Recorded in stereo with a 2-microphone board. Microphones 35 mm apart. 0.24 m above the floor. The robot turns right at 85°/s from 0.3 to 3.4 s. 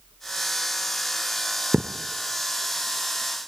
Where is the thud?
65° right (ahead or behind), 1.2 m; by 1.9 s 55° right (ahead or behind), 1.2 m.